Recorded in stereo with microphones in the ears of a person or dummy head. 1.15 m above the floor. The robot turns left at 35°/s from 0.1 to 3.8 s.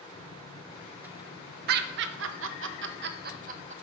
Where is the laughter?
50° right (ahead or behind), 0.6 m; by 3.7 s 35° right (ahead or behind), 0.6 m.